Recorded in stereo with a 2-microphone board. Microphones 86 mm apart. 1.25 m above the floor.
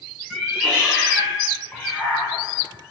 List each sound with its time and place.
0.3 s a cat meowing: centre (ahead or behind), 1.6 m; by 2.9 s 10° left (ahead or behind), 0.8 m